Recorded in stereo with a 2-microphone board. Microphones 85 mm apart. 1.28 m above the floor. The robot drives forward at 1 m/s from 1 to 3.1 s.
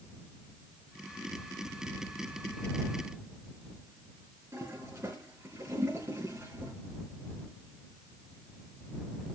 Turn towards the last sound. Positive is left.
turn(degrees=-40)  # may be behind; listen again after turning